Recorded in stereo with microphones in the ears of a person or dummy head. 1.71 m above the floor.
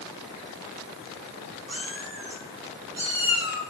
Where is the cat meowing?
40° right (ahead or behind), 2 m; by 3.6 s centre (ahead or behind), 1.3 m.